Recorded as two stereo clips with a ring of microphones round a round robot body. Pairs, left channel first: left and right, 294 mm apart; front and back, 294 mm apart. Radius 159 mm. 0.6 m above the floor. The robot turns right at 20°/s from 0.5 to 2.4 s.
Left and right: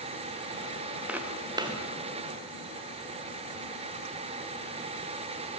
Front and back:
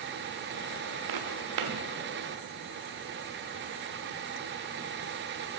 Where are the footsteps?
175° right, 4 m; by 1.8 s 160° right, 4 m.